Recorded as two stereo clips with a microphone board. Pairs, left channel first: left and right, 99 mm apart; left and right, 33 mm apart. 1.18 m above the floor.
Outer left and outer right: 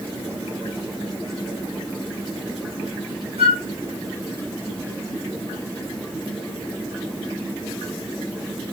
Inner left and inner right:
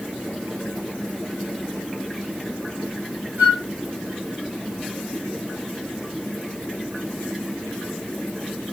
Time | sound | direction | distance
3.4 | a flute | 80° right | 2.5 m